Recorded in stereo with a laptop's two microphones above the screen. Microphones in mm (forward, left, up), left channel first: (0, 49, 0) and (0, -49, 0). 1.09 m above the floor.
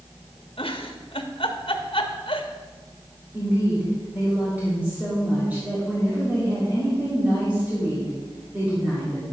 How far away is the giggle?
About 1.1 m.